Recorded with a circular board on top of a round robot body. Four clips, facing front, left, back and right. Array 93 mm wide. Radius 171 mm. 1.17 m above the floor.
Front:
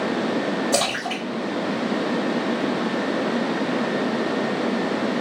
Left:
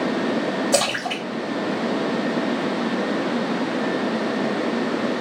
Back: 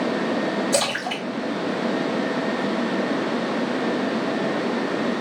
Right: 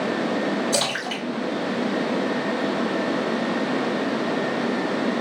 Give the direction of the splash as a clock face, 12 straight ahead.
10 o'clock.